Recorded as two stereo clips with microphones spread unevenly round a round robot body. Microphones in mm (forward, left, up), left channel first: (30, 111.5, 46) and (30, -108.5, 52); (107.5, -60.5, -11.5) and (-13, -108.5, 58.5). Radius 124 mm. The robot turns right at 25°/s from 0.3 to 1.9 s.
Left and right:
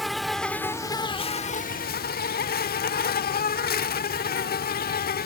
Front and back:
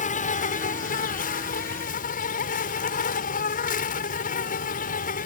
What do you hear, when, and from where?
0.0 s an insect: straight ahead; by 5.3 s 40° left